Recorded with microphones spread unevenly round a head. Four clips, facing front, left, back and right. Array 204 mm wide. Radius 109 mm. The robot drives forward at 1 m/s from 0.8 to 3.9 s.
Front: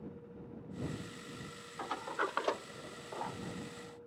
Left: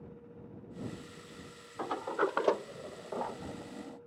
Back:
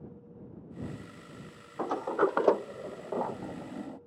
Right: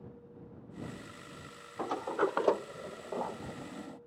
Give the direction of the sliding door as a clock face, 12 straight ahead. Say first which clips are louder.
Right 1 dB, back 10 dB; 6 o'clock.